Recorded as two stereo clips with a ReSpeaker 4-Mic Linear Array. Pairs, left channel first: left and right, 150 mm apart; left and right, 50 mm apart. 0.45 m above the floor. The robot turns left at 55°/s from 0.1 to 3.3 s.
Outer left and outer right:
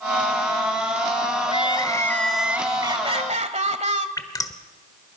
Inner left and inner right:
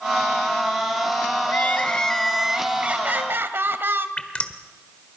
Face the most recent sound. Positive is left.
turn(degrees=25)  # may be behind; listen again after turning